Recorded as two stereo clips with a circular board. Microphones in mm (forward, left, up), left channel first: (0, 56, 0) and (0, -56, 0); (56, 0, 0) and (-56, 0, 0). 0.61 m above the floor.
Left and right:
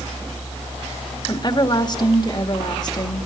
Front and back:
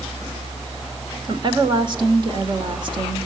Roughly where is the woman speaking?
Behind left.